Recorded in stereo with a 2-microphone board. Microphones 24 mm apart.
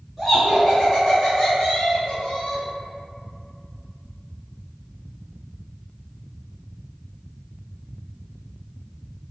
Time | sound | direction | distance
0.2 | laughter | 20° right (ahead or behind) | 1.6 m